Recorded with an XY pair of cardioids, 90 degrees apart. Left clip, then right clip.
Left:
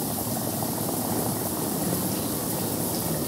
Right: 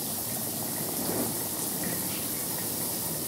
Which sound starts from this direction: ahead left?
A vehicle, at 0.0 s.